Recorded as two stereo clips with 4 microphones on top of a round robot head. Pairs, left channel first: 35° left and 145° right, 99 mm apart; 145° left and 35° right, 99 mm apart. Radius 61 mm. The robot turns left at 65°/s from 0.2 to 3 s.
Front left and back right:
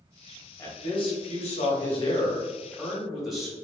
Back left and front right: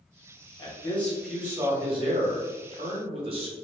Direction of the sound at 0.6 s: 95° left.